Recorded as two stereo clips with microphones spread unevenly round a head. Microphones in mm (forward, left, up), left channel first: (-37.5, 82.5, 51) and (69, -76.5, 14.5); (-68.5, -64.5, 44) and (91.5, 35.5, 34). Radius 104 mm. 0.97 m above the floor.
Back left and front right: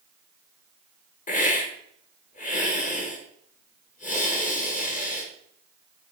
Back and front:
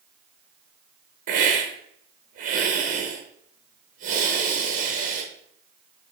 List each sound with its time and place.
1.3 s a hiss: 70° left, 1.6 m